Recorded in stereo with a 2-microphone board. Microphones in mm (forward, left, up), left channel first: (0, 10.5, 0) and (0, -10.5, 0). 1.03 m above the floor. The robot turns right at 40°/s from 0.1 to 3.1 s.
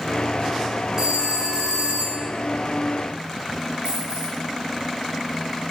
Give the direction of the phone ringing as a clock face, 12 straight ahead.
5 o'clock.